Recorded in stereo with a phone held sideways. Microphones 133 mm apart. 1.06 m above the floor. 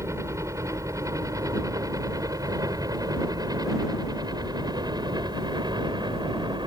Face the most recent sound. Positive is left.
turn(degrees=-30)  # may be behind; listen again after turning